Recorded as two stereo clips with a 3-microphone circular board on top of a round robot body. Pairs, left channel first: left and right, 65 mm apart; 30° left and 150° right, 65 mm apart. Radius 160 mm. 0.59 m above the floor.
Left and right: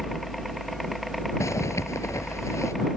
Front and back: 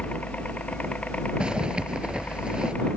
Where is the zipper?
135° left.